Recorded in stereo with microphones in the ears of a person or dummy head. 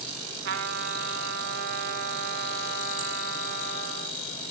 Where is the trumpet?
60° right (ahead or behind), 1.5 m.